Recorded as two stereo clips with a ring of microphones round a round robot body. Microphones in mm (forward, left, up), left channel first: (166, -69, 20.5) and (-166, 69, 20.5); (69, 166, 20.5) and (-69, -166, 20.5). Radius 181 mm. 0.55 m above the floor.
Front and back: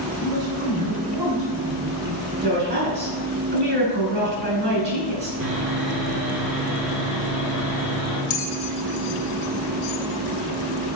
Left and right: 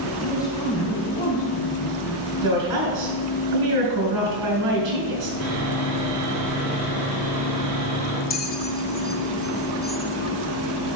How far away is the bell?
About 0.7 m.